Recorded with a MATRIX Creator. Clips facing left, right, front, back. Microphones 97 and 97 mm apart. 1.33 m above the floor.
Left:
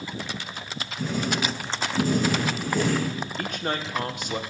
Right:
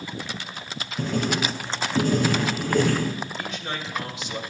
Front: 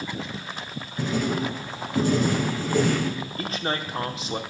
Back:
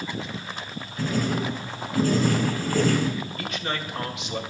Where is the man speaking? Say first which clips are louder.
Left 3 dB, front 2 dB; 55° left, 1.1 m.